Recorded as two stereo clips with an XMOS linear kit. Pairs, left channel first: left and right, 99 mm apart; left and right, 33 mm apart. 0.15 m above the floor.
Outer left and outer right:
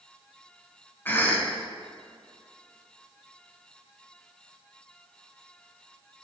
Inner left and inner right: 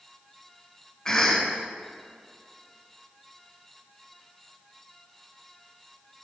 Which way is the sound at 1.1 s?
20° left (ahead or behind).